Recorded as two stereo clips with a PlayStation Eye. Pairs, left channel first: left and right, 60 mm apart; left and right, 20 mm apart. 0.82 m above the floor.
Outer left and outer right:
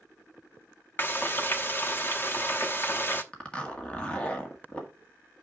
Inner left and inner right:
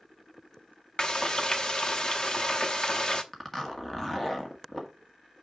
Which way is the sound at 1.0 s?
35° left (ahead or behind).